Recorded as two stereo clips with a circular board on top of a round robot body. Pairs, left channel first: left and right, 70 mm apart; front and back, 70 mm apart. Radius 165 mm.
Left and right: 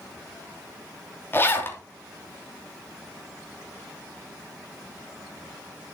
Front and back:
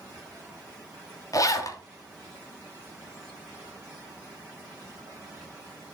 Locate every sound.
1.3 s a zipper: 35° left, 2 m